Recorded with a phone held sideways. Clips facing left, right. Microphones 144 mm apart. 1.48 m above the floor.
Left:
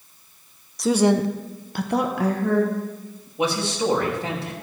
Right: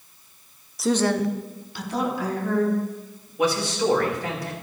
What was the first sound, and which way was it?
A woman speaking, 5° right (ahead or behind).